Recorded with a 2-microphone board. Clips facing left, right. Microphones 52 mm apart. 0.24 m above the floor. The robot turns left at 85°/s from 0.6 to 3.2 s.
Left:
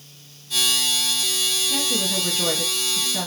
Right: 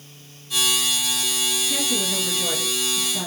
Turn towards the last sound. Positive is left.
turn(degrees=50)